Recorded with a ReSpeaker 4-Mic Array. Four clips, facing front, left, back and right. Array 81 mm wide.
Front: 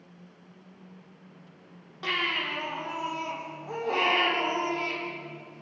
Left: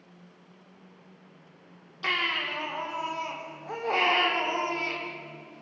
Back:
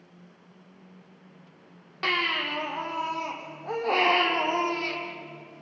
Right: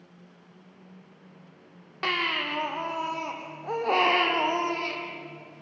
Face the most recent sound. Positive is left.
turn(degrees=-120)